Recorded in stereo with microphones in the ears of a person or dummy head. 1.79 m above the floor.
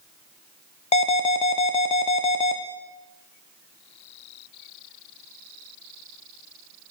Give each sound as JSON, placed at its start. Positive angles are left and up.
{"t": 0.9, "sound": "an alarm", "side_deg": 35, "distance_m": 1.1}